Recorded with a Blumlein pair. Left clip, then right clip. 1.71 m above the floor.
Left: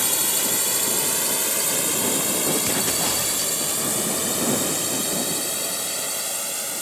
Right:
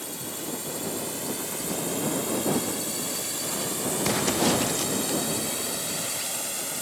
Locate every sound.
0.0 s a drone: 55° left; by 6.8 s 80° left